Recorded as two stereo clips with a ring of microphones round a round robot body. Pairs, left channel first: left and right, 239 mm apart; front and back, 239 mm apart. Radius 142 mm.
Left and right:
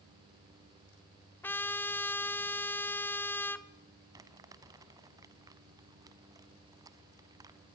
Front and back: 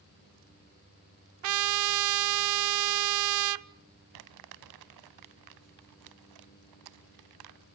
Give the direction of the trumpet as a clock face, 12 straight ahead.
6 o'clock.